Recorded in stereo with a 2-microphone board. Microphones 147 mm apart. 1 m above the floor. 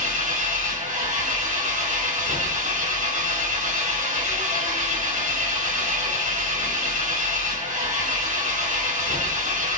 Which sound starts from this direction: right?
An engine running, at 0.0 s.